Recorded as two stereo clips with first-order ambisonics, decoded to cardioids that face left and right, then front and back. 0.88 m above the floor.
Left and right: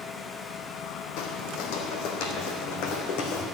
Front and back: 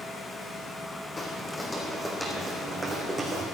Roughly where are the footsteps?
Left.